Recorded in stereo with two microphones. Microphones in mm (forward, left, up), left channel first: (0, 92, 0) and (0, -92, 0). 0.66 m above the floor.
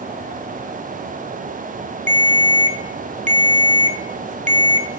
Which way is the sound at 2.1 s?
40° right (ahead or behind).